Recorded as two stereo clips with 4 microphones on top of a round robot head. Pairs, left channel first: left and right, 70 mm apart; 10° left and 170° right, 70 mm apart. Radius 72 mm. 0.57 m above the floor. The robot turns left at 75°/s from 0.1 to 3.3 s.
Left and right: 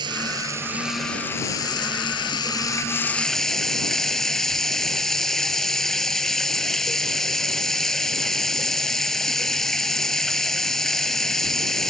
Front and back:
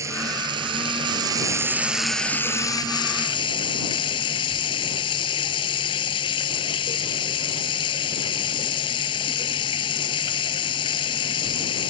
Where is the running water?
115° right; by 11.9 s 5° left.